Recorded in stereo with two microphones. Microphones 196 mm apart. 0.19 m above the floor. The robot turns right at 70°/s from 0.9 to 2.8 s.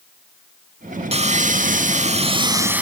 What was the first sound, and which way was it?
Sawing, 130° right.